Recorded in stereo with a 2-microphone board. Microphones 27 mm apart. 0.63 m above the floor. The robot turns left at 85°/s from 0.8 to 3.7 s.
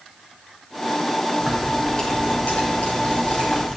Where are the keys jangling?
145° right, 5 m; by 3.8 s 20° left, 5 m.